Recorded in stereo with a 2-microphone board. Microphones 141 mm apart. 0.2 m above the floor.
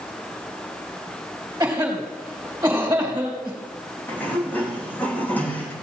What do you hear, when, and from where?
1.6 s a cough: 20° right (ahead or behind), 3.5 m
4.1 s a sliding door: 10° left (ahead or behind), 3.5 m